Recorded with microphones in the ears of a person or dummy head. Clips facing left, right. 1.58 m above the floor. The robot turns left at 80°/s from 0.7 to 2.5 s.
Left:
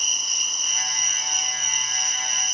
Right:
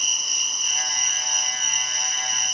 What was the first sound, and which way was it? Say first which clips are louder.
An insect: right 1 dB; 50° right.